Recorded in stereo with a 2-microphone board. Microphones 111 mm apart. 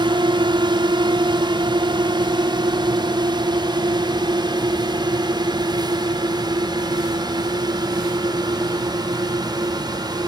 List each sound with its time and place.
0.0 s a drone: 45° right (ahead or behind); by 10.3 s 40° right (ahead or behind)